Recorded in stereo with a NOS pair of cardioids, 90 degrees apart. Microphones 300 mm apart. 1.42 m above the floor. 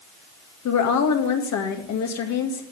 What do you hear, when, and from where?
0.7 s a woman speaking: 65° left, 2.5 m